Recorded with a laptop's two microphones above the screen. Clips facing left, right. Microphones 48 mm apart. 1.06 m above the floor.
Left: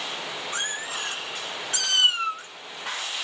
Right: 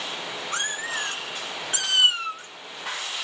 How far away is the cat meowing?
About 1.1 m.